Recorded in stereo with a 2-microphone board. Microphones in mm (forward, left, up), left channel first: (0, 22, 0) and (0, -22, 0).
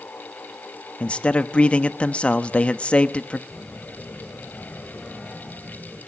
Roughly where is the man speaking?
Left.